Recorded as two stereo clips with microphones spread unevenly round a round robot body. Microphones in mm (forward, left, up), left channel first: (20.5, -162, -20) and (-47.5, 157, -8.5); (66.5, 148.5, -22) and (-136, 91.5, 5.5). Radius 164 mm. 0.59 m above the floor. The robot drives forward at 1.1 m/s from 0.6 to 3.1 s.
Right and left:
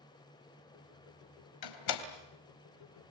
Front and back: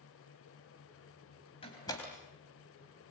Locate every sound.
1.6 s a door slam: 55° right, 3 m; by 2.0 s 65° right, 2.5 m